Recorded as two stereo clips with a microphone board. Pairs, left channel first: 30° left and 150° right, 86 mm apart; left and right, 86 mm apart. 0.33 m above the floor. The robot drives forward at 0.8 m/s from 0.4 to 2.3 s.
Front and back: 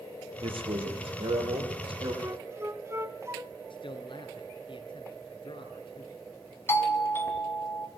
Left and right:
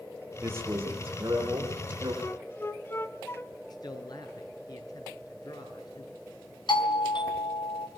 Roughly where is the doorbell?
Left.